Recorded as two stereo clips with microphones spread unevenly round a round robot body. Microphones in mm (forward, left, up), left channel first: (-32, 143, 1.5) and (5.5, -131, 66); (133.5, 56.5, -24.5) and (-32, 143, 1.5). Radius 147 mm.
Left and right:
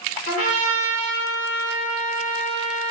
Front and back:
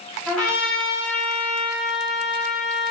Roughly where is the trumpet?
Ahead left.